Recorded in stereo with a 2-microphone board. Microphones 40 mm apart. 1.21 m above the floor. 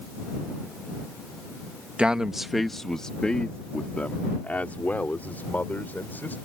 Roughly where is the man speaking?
Right.